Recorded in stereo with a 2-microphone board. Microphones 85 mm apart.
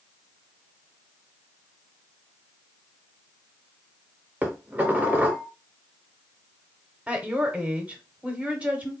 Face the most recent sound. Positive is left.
turn(degrees=-15)  # may be behind; listen again after turning